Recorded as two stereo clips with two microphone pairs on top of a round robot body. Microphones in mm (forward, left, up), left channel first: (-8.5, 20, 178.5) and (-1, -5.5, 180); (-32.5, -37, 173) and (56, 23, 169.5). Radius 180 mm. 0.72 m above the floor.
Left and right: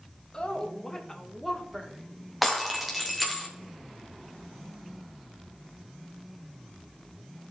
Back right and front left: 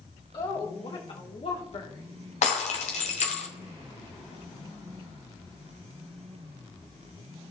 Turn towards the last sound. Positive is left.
turn(degrees=-160)